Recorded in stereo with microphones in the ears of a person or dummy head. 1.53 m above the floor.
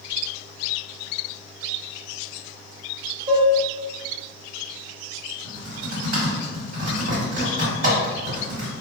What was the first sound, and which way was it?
Dishes clattering, 45° right (ahead or behind).